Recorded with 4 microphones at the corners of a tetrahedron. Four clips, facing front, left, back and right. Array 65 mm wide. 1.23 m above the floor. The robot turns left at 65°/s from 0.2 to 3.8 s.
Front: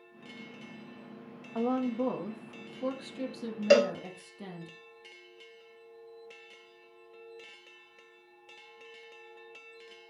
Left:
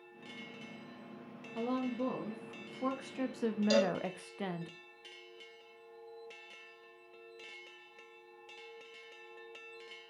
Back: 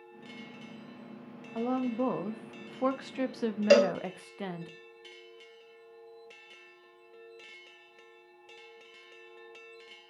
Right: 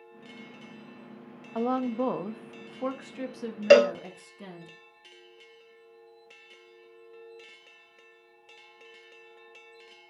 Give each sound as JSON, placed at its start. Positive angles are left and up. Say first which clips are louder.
{"t": 1.6, "sound": "a woman speaking", "louder": "right 8 dB, front 1 dB", "azimuth_deg": -75, "distance_m": 1.3}
{"t": 3.7, "sound": "a cowbell", "louder": "right 13 dB, back 1 dB", "azimuth_deg": -90, "distance_m": 0.6}